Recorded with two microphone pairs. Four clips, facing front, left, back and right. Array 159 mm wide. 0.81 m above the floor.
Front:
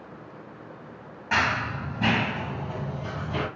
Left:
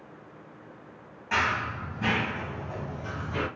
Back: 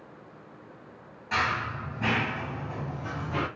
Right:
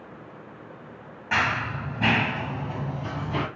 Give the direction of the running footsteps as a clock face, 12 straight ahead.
1 o'clock.